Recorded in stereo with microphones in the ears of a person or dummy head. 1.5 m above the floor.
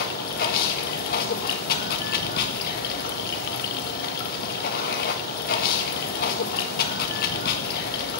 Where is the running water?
45° left (ahead or behind), 1.3 m.